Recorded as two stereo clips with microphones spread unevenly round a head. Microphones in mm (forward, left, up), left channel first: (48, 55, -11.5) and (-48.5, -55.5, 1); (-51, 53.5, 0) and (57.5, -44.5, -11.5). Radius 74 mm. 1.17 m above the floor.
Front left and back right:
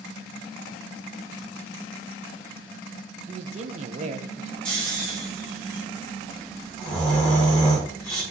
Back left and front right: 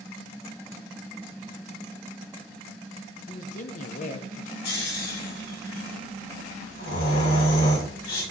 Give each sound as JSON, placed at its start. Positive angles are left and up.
{"t": 3.3, "sound": "a man speaking", "azimuth_deg": 180, "distance_m": 0.7}
{"t": 4.7, "sound": "snoring", "azimuth_deg": 135, "distance_m": 4.0}